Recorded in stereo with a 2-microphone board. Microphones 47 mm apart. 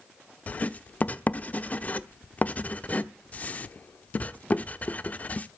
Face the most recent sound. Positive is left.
turn(degrees=35)  # may be behind; listen again after turning